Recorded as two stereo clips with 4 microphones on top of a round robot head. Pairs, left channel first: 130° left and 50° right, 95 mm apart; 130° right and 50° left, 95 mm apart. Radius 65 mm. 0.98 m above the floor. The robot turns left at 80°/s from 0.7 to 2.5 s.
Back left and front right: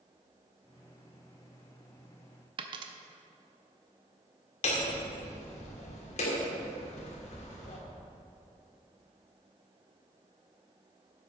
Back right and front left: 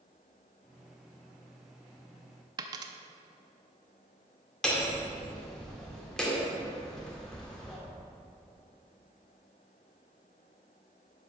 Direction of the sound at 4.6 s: 145° left.